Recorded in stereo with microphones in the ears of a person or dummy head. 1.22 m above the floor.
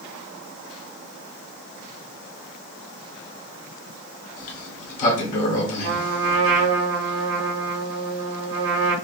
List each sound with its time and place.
4.4 s a sliding door: 30° left (ahead or behind), 0.8 m
5.8 s a trumpet: 75° right (ahead or behind), 1.4 m